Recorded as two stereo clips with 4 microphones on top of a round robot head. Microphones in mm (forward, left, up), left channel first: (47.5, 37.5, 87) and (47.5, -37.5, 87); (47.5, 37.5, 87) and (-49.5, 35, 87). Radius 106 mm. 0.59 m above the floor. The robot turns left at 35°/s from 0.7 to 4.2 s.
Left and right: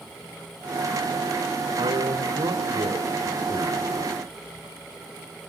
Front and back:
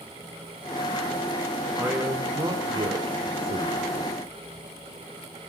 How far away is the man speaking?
About 3 m.